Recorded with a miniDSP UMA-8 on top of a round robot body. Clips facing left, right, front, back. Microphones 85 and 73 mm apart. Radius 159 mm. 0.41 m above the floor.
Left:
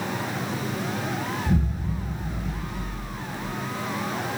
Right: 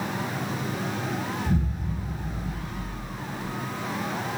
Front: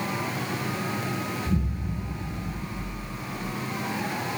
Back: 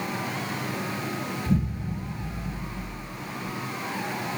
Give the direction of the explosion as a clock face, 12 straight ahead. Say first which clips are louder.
Left 2 dB, back 2 dB; 6 o'clock.